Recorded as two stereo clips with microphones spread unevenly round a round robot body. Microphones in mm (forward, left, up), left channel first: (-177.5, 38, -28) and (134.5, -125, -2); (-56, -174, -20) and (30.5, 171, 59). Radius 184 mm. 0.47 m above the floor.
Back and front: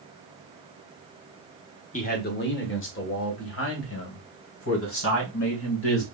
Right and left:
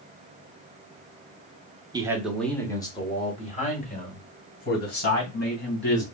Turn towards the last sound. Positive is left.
turn(degrees=-160)